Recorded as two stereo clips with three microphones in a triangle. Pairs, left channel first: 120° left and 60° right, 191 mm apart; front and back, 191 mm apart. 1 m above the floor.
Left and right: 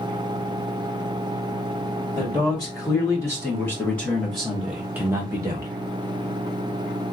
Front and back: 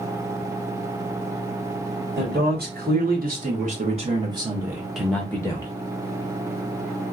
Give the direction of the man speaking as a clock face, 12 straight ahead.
6 o'clock.